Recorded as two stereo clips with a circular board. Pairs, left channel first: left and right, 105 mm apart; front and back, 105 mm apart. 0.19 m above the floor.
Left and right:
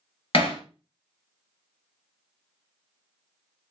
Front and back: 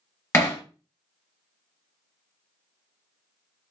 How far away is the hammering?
About 1.3 m.